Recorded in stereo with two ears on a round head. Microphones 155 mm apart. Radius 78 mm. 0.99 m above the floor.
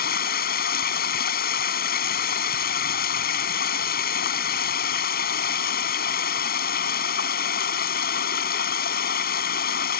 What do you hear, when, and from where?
0.0 s running water: 60° left (ahead or behind)